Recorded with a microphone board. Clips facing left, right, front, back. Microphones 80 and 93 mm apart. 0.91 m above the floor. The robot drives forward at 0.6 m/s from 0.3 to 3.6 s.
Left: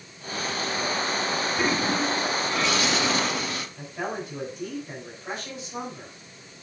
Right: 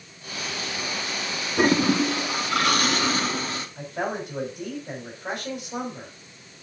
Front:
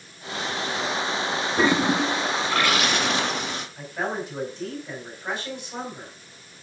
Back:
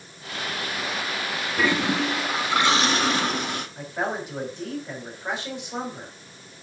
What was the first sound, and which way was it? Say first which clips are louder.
A toilet flushing: right 7 dB, front 2 dB; 60° right.